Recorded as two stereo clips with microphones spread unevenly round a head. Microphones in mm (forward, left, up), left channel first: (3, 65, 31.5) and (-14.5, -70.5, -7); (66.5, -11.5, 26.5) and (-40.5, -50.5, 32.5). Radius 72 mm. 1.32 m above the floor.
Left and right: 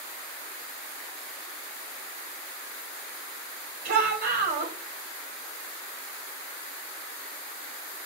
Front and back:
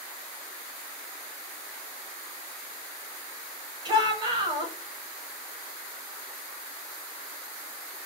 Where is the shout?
105° right, 1.7 m.